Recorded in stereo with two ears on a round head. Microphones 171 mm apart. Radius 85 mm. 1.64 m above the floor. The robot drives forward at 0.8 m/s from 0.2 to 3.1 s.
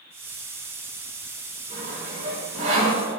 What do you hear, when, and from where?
1.7 s sawing: 40° right (ahead or behind), 7 m; by 3.0 s 35° right (ahead or behind), 8 m